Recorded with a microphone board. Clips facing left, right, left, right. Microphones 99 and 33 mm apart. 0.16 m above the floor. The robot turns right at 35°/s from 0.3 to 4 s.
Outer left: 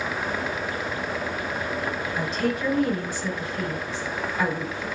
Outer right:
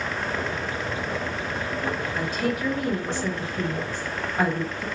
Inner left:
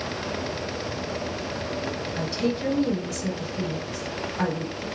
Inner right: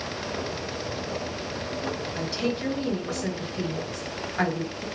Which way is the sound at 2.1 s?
Straight behind.